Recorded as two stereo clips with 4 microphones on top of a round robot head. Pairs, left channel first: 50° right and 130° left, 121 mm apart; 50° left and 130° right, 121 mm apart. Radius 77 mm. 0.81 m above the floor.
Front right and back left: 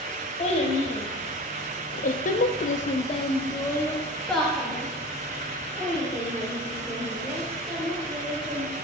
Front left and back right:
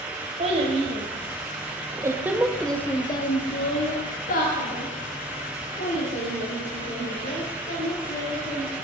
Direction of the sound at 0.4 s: 90° right.